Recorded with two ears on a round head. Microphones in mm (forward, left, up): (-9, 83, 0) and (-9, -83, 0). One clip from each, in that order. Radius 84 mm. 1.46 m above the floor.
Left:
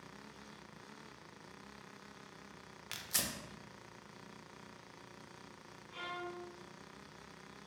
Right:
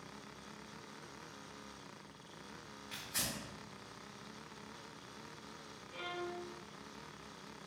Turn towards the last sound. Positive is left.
turn(degrees=25)  # may be behind; listen again after turning